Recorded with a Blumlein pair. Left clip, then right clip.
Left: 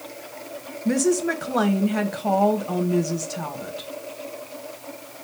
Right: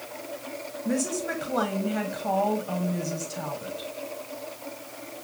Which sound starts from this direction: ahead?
A woman speaking, at 0.8 s.